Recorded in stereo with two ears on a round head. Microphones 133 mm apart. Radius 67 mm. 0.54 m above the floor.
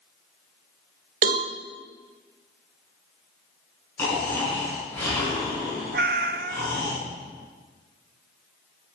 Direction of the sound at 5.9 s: 65° right (ahead or behind).